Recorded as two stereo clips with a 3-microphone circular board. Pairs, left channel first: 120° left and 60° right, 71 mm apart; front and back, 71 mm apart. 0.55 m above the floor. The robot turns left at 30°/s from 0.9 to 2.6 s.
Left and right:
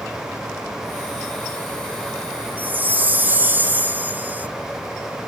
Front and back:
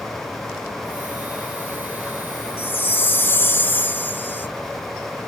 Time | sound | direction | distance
2.6 | a chime | 20° right | 0.7 m